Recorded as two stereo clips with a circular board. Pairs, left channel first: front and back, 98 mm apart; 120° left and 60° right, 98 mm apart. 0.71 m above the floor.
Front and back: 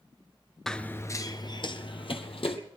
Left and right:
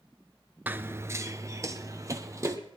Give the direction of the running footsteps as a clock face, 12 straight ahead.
3 o'clock.